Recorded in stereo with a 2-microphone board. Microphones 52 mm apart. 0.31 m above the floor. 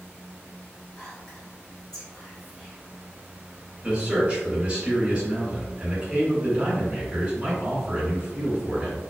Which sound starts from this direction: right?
A man speaking, at 3.8 s.